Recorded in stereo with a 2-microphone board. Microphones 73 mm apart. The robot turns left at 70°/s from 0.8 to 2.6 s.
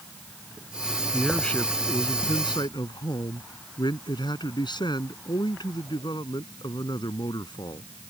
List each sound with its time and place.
1.1 s a man speaking: 170° right; by 7.9 s 85° left